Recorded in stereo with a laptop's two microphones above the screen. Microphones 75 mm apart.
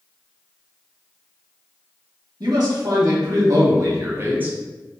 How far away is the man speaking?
About 1.5 m.